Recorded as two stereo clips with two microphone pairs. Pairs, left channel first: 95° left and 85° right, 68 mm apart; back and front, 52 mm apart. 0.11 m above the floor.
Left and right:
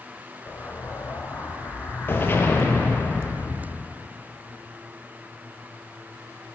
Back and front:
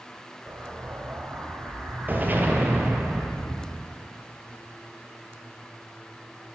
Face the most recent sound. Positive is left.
turn(degrees=45)